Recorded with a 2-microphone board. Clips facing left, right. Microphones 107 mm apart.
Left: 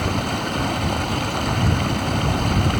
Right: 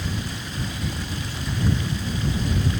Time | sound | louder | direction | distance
0.0 | running water | left 8 dB | 70° left (ahead or behind) | ?